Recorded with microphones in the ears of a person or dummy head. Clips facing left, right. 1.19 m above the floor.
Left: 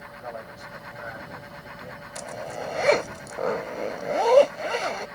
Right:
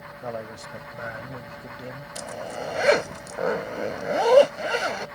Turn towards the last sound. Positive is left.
turn(degrees=-5)  # may be behind; listen again after turning